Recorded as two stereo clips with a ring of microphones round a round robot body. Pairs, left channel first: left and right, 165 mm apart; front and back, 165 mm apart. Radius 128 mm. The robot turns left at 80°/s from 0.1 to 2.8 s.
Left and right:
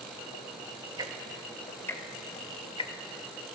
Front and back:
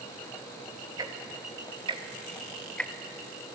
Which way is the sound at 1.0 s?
135° right.